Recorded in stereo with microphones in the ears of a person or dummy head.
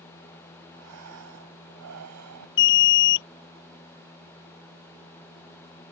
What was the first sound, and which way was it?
Breathing, 85° right.